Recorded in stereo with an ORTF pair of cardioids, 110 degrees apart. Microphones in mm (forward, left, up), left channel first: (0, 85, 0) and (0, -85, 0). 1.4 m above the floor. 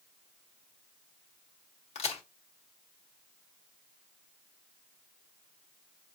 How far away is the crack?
About 1.1 m.